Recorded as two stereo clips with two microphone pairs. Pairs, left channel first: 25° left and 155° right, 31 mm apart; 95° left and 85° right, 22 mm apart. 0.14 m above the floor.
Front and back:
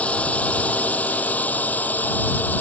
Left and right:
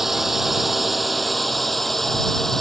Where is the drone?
15° right; by 2.6 s 20° left.